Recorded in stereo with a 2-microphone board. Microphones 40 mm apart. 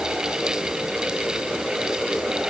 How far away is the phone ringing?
No phone ringing in this recording.